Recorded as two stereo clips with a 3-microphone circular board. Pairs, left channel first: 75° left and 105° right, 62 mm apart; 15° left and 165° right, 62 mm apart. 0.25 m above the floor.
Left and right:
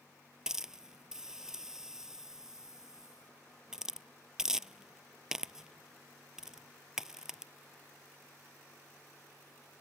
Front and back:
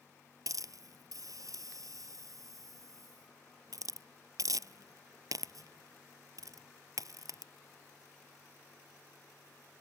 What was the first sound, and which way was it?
A hiss, 175° left.